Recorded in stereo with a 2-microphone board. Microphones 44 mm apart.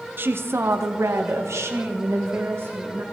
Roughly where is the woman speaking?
Right.